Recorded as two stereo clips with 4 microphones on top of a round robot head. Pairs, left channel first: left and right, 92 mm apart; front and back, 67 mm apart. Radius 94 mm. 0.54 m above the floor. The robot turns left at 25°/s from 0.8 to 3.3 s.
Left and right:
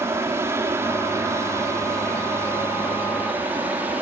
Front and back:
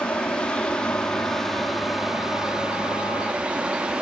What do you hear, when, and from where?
0.0 s an aircraft: 55° right; by 4.0 s 130° right